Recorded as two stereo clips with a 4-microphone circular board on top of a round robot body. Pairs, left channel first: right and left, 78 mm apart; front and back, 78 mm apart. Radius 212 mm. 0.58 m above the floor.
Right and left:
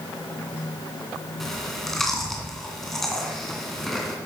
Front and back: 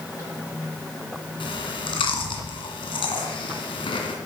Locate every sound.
1.4 s chewing: 5° right, 2 m